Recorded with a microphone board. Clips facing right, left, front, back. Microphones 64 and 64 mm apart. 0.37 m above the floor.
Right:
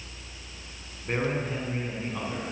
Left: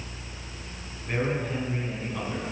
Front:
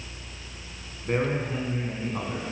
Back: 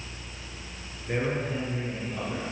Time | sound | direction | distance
1.1 | a man speaking | 25° right | 4 m